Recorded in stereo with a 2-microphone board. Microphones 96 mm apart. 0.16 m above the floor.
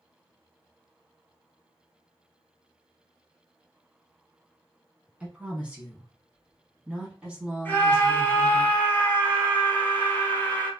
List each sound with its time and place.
5.2 s a woman speaking: 10° right (ahead or behind), 1.2 m
7.7 s a scream: 20° left (ahead or behind), 1.1 m